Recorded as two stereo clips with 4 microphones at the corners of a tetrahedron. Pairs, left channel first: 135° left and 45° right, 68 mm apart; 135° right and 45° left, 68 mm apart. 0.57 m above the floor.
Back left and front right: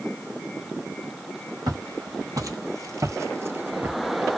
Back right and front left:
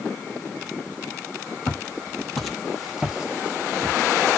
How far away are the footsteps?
About 1.3 m.